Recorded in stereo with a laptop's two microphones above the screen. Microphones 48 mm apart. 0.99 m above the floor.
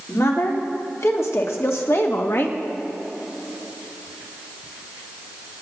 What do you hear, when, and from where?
0.1 s a woman speaking: 70° left (ahead or behind), 2 m; by 2.6 s 45° left (ahead or behind), 1.1 m